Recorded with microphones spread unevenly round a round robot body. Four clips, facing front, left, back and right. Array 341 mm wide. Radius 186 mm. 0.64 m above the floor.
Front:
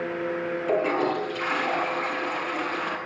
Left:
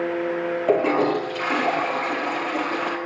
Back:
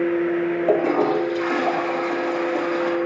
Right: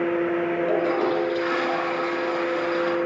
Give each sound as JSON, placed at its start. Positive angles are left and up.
{"t": 0.7, "sound": "a toilet flushing", "azimuth_deg": 145, "distance_m": 5.0}